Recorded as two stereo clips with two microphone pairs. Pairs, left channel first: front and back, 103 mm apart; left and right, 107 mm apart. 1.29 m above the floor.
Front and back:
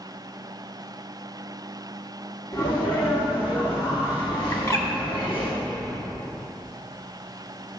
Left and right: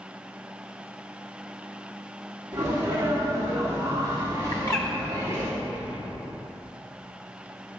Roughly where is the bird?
Ahead left.